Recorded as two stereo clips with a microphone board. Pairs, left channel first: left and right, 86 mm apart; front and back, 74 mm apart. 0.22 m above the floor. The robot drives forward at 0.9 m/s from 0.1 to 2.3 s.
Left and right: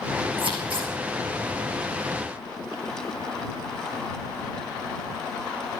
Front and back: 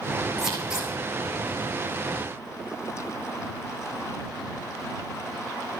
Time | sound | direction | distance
0.4 | scissors | 95° right | 4.5 m